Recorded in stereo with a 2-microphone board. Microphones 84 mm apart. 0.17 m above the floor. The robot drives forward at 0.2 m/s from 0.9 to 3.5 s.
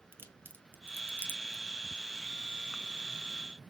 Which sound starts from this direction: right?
A crack, at 0.1 s.